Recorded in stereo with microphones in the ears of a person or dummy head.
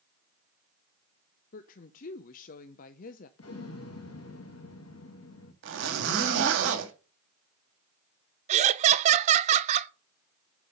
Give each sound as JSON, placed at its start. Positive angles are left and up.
{"t": 1.5, "sound": "a woman speaking", "side_deg": 45, "distance_m": 0.6}
{"t": 3.4, "sound": "an explosion", "side_deg": 70, "distance_m": 1.9}
{"t": 5.6, "sound": "a zipper", "side_deg": -70, "distance_m": 2.5}
{"t": 8.5, "sound": "laughter", "side_deg": -35, "distance_m": 0.5}